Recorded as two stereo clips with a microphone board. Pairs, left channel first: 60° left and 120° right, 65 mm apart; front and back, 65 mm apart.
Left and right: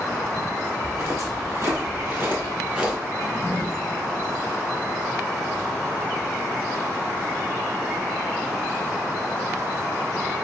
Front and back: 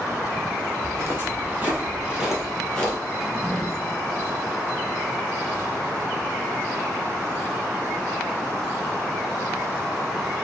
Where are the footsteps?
140° right, 1.8 m; by 3.0 s 55° right, 1.1 m.